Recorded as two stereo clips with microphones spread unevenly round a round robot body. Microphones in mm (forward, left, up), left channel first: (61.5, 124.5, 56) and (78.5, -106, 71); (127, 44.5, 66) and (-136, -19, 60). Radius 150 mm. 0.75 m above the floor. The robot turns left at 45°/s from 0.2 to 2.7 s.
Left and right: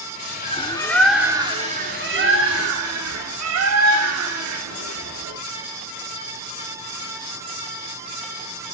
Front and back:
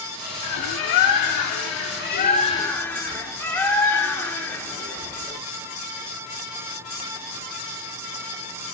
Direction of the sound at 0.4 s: 35° left.